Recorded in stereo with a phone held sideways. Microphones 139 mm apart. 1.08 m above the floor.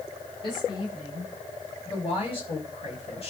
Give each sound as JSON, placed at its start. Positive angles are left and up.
{"t": 0.4, "sound": "a woman speaking", "side_deg": 35, "distance_m": 7.5}